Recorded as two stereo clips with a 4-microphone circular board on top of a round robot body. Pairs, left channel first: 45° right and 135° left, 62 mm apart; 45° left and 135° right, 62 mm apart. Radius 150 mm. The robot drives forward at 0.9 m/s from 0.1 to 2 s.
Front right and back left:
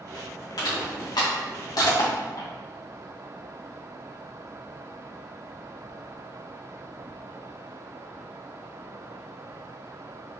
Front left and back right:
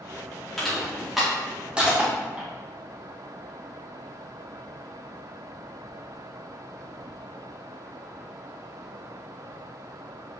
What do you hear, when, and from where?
0.6 s crushing: 40° right, 3 m; by 2.5 s 65° right, 2 m